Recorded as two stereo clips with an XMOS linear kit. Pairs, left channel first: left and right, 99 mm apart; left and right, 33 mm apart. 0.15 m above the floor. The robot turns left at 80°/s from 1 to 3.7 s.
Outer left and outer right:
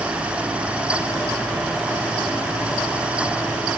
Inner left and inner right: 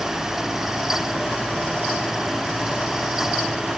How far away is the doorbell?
No doorbell in this recording.